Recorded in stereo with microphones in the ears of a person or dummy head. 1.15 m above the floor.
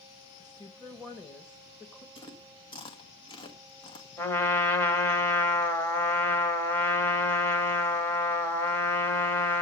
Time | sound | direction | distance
0.4 | a woman speaking | 10° left (ahead or behind) | 1.3 m
2.1 | chewing | 25° left (ahead or behind) | 1.6 m
4.2 | a trumpet | 10° left (ahead or behind) | 1.7 m